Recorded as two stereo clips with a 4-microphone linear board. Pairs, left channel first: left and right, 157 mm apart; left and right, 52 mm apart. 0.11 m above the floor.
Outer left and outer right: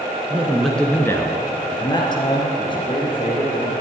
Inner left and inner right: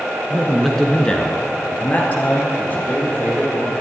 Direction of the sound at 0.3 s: 10° right (ahead or behind).